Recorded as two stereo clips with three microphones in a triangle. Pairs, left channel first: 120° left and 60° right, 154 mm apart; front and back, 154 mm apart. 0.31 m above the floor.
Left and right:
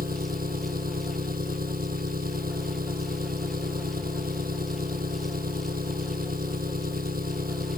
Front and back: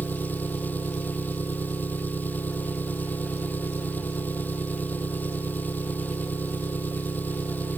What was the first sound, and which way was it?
An engine running, 80° right.